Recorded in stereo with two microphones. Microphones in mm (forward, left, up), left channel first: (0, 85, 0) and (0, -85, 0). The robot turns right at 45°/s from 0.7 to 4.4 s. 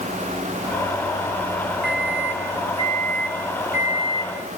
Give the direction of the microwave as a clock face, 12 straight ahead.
8 o'clock.